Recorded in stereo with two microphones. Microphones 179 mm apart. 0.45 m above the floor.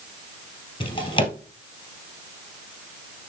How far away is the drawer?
About 2.5 m.